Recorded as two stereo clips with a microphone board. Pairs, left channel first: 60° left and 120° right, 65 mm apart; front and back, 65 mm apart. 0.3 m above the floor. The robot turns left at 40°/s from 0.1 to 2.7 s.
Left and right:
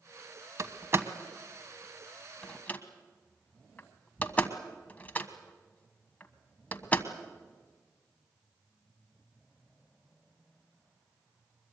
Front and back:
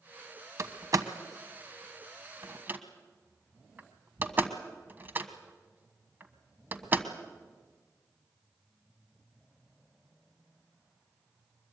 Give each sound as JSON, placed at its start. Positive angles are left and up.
{"t": 0.6, "sound": "a door slam", "azimuth_deg": -150, "distance_m": 1.3}